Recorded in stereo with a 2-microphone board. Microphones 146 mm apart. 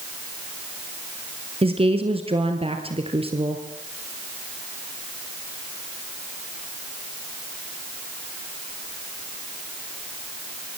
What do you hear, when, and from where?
1.6 s a woman speaking: 40° right (ahead or behind), 2.5 m